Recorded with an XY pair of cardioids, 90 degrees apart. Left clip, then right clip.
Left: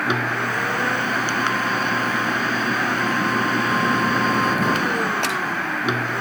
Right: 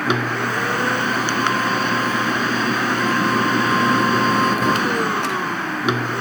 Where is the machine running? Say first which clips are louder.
Right 1 dB; 30° right.